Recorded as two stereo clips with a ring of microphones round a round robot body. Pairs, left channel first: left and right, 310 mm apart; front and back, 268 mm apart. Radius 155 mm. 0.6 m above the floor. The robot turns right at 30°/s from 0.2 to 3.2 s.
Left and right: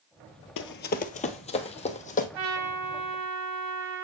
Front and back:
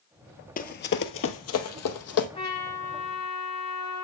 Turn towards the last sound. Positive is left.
turn(degrees=-50)